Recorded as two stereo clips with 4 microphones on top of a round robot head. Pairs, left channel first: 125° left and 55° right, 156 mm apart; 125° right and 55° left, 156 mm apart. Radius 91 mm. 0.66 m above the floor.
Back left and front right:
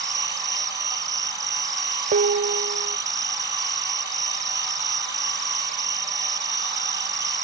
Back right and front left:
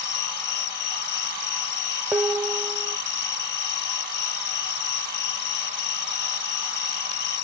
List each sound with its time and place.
0.0 s an insect: 120° right
2.1 s dishes clattering: 25° right